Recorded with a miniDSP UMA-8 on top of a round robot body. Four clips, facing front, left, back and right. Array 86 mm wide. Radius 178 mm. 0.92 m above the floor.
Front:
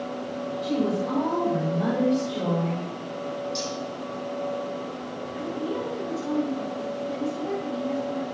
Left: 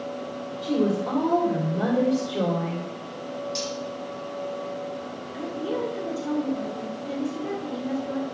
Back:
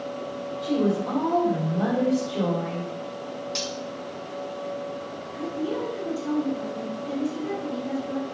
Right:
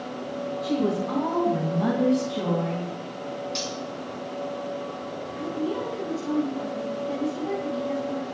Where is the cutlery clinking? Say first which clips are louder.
Left 1 dB, front 1 dB; 155° right, 0.8 m.